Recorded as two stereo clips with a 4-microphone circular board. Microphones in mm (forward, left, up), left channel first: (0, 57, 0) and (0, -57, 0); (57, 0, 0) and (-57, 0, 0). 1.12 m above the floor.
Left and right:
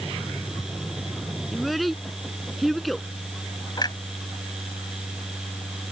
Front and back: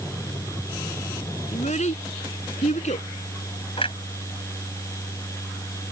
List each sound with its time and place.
1.5 s a child speaking: straight ahead
3.8 s a clunk: 35° left